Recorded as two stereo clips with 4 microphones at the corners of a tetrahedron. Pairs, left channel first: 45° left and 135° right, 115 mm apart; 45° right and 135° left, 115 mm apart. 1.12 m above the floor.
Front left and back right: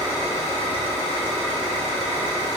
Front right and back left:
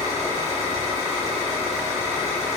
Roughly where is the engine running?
Behind left.